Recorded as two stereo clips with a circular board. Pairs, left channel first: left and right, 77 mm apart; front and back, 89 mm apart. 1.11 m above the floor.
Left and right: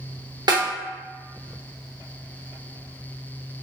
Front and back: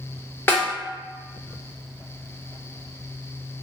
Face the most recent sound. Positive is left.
turn(degrees=-65)